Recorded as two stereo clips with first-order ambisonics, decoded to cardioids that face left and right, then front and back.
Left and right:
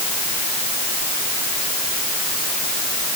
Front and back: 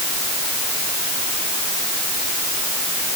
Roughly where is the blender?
No blender in this recording.